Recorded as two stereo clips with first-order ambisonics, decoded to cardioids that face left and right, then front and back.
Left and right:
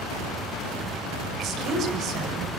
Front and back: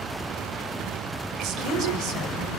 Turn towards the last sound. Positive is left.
turn(degrees=-140)